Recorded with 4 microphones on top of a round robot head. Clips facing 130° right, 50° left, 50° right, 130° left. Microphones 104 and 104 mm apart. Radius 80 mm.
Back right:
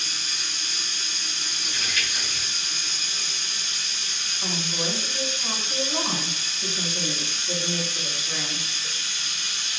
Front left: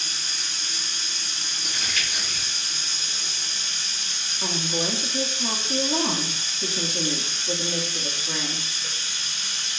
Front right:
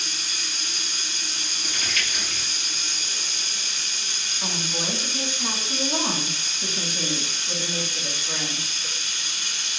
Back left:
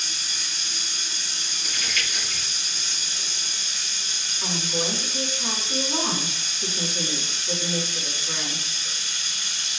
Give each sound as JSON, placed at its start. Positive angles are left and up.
{"t": 0.0, "sound": "running water", "azimuth_deg": -10, "distance_m": 1.2}
{"t": 1.6, "sound": "crumpling", "azimuth_deg": 5, "distance_m": 2.5}
{"t": 4.4, "sound": "a woman speaking", "azimuth_deg": 30, "distance_m": 1.7}